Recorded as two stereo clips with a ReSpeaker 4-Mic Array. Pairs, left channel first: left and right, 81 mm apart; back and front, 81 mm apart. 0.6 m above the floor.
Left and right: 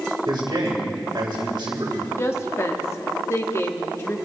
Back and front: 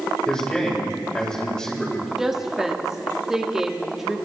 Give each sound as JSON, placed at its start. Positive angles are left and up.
{"t": 0.3, "sound": "a man speaking", "azimuth_deg": -100, "distance_m": 3.0}
{"t": 2.2, "sound": "a woman speaking", "azimuth_deg": 80, "distance_m": 1.2}